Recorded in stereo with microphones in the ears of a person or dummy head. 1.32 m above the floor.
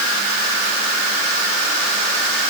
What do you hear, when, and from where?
Only background noise.